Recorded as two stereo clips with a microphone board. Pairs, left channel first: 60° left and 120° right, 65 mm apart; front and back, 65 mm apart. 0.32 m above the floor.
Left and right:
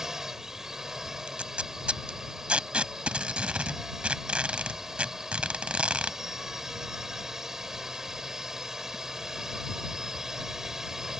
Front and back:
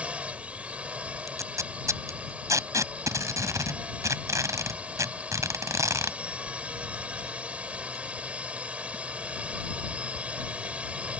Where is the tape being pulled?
170° left.